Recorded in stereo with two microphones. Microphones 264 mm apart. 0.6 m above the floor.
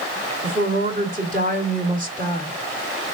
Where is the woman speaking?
30° right (ahead or behind), 1.7 m.